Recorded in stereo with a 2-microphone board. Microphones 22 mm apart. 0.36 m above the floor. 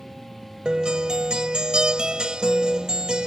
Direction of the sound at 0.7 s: 40° right (ahead or behind).